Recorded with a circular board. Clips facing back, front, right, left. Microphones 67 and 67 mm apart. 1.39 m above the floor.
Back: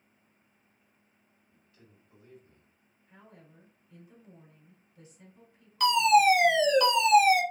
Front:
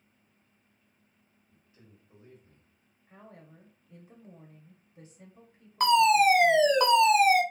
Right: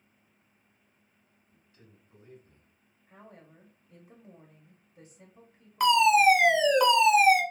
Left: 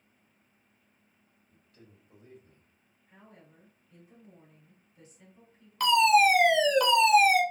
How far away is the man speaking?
About 1.7 m.